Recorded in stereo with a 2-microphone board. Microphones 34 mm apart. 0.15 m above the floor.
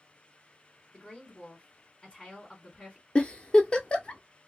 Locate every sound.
0.9 s a woman speaking: 30° left (ahead or behind), 1.6 m
3.1 s a giggle: 30° left (ahead or behind), 0.5 m